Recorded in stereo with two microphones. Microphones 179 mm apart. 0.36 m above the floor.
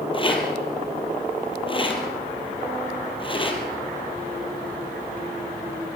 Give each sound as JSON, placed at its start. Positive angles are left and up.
{"t": 0.1, "sound": "a rattle", "side_deg": 30, "distance_m": 4.0}